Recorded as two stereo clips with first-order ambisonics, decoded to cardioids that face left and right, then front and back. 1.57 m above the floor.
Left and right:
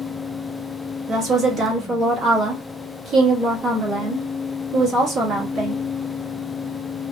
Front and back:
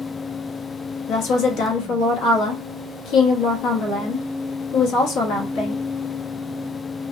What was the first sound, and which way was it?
A woman speaking, 35° right.